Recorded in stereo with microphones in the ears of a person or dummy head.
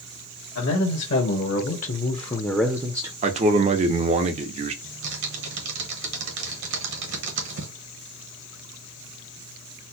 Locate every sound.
0.6 s a man speaking: 70° left (ahead or behind), 1.4 m; by 3.1 s 30° right (ahead or behind), 0.6 m
3.2 s a man speaking: 35° right (ahead or behind), 0.6 m
4.8 s typing on a keyboard: 65° right (ahead or behind), 1.0 m